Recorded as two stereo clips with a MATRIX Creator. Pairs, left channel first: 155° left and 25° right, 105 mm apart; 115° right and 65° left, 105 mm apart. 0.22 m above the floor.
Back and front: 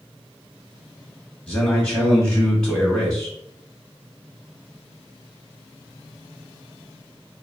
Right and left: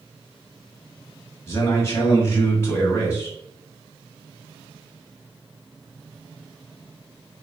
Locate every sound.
1.5 s a man speaking: 130° right, 1.0 m